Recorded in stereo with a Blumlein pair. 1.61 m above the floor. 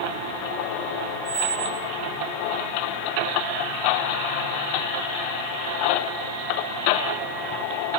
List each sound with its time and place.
1.2 s a squeak: 15° right, 3.5 m